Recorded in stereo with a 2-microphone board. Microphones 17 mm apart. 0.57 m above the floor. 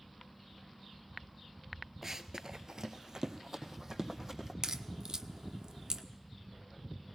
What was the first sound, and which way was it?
Running footsteps, 25° right (ahead or behind).